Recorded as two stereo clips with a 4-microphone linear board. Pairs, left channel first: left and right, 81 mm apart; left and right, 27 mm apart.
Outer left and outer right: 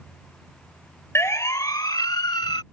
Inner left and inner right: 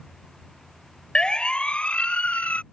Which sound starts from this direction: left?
A siren, at 1.1 s.